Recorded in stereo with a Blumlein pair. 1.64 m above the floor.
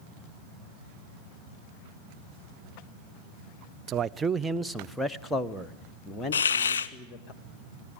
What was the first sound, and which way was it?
A man speaking, 30° right.